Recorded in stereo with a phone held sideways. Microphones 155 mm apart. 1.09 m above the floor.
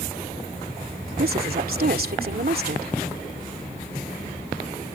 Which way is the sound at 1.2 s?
65° right (ahead or behind).